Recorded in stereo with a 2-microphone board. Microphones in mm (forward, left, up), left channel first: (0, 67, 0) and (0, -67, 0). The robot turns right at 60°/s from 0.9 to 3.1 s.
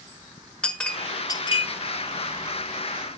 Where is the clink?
10° left (ahead or behind), 1.2 m; by 1.6 s 45° left (ahead or behind), 1.2 m.